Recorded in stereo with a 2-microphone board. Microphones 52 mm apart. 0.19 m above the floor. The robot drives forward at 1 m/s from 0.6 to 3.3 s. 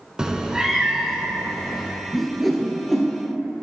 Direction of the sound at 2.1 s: 5° left (ahead or behind).